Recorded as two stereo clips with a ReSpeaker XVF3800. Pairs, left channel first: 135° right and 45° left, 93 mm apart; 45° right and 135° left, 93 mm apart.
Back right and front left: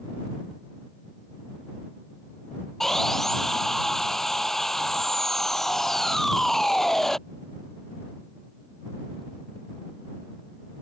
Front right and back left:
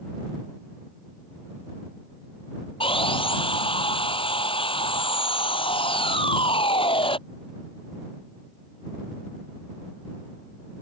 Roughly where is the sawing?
Ahead right.